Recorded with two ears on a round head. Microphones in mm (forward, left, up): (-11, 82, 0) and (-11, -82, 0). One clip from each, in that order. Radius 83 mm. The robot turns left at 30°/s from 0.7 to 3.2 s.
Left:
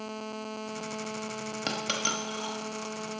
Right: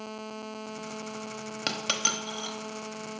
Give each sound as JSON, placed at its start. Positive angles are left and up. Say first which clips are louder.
{"t": 1.7, "sound": "a dropped coin", "louder": "right 2 dB", "side_deg": -20, "distance_m": 0.8}